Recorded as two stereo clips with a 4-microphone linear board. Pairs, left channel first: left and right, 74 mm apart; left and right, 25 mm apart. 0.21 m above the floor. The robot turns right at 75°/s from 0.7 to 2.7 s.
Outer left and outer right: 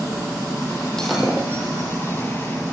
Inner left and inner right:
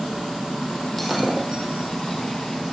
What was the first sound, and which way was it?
Breaking glass, 10° left (ahead or behind).